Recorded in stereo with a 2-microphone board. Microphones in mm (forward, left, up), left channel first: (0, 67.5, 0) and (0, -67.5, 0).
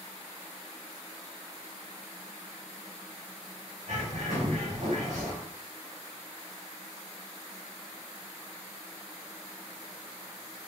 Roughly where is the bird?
Right.